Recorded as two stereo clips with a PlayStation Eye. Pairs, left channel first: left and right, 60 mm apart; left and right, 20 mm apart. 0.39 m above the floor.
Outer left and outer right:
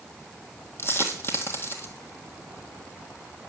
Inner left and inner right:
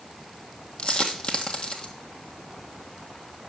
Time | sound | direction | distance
0.8 | a dropped coin | 40° left (ahead or behind) | 1.4 m